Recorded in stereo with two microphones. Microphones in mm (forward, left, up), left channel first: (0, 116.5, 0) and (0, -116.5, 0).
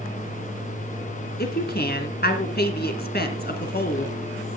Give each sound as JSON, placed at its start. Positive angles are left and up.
{"t": 1.4, "sound": "a woman speaking", "side_deg": 45, "distance_m": 2.0}